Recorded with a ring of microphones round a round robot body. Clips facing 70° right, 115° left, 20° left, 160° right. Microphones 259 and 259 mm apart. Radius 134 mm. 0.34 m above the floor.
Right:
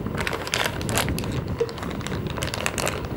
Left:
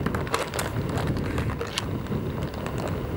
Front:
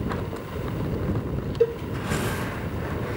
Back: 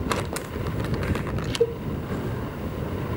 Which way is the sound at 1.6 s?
45° right.